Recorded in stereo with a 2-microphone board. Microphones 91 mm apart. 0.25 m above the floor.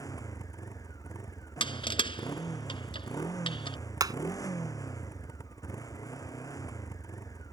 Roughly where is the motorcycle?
Left.